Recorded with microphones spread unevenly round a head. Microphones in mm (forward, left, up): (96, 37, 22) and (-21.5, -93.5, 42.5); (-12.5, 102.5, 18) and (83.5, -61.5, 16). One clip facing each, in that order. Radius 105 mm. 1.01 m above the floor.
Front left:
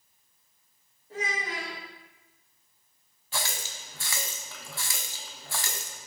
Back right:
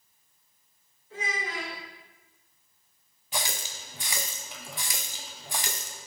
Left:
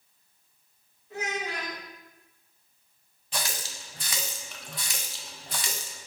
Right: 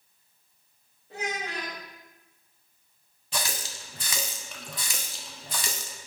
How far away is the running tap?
About 0.5 m.